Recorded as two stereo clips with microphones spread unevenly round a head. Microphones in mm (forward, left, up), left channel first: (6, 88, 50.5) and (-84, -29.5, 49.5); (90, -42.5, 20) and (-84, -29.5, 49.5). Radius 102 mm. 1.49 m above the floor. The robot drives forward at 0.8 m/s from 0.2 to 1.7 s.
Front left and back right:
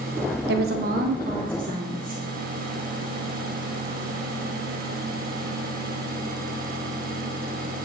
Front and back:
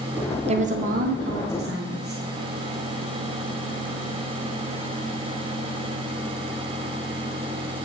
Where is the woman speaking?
130° right, 0.8 m; by 2.2 s 155° right, 1.6 m.